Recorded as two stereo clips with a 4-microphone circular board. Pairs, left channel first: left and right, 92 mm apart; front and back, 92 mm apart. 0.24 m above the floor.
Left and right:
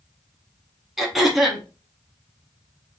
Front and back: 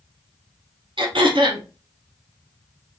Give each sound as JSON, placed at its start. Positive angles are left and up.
{"t": 1.0, "sound": "throat clearing", "azimuth_deg": 180, "distance_m": 0.9}